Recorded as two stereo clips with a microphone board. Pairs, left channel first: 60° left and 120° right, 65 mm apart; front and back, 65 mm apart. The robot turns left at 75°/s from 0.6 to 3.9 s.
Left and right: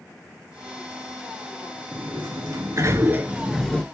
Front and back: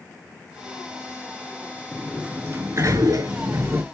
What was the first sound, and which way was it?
A sliding door, 85° right.